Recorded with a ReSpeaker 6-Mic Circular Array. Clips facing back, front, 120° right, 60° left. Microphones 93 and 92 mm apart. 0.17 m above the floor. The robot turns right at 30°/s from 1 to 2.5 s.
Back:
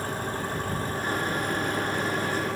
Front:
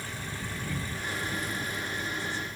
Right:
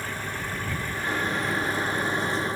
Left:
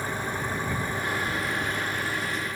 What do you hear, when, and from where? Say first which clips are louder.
0.0 s an engine running: back 8 dB, left 3 dB; 135° left; by 2.6 s straight behind